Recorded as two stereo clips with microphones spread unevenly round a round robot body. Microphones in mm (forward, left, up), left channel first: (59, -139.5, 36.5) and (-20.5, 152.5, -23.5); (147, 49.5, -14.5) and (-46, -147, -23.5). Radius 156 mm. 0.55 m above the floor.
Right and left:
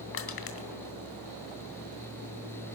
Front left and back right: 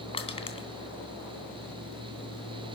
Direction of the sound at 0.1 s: 25° right.